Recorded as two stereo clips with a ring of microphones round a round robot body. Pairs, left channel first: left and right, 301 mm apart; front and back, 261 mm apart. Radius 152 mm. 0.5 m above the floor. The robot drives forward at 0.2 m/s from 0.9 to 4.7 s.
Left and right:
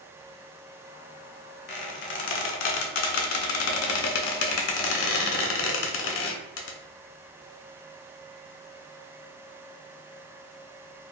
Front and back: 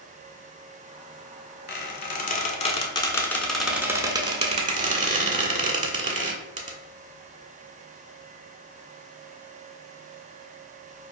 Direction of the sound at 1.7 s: 40° left.